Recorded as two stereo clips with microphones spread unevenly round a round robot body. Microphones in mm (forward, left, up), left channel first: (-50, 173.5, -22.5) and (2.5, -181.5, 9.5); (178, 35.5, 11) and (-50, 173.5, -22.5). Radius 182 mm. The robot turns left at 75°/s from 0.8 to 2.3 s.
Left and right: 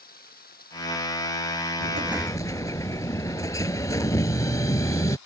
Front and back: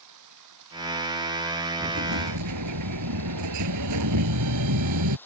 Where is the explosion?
145° right; by 5.2 s straight behind.